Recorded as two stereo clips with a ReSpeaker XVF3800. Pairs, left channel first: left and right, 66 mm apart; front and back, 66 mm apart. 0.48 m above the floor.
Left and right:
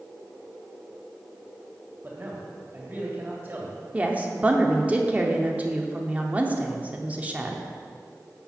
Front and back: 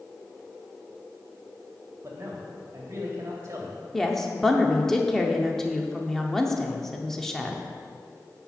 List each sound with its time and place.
2.0 s a man speaking: 145° right, 2 m
3.9 s a woman speaking: 75° right, 0.7 m